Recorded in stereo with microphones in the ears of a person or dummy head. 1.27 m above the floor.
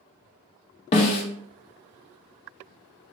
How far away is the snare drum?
About 0.5 m.